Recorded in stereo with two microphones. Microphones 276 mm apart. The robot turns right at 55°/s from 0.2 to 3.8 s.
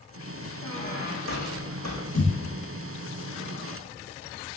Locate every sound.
0.6 s a squeak: 15° left, 4 m; by 2.0 s 90° left, 4 m
2.1 s a thud: 75° left (ahead or behind), 4 m; by 2.4 s 60° left (ahead or behind), 4 m